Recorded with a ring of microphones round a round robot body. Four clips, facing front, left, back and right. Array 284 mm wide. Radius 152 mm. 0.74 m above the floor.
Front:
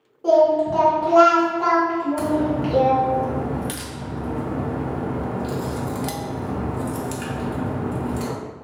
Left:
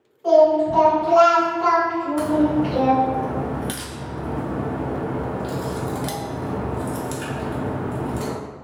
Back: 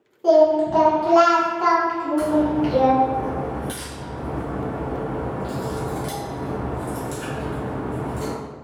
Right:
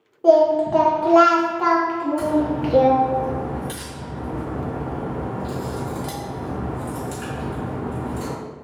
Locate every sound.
0.2 s singing: 95° right, 0.8 m
2.2 s a crack: 35° left, 0.8 m